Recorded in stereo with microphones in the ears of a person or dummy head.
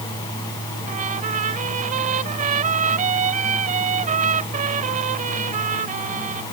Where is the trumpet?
40° right (ahead or behind).